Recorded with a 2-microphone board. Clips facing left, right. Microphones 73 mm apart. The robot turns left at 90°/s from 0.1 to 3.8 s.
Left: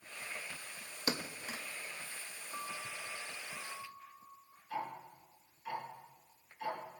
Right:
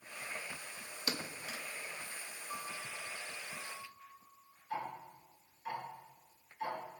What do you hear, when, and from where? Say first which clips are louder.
1.1 s a thud: left 3 dB; 25° left (ahead or behind), 0.9 m; by 1.6 s 35° left (ahead or behind), 0.9 m
2.5 s a piano: left 1 dB; 100° right, 4 m; by 4.6 s 145° left, 4 m
4.7 s ticking: even; 25° right (ahead or behind), 6.5 m